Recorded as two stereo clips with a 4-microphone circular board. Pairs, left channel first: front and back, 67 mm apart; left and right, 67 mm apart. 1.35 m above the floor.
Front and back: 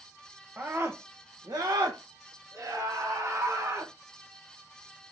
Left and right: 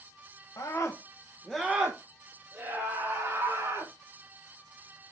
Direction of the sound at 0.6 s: 120° left.